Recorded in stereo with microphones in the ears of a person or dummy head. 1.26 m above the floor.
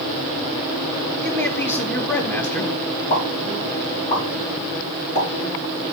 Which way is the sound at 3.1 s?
30° left (ahead or behind).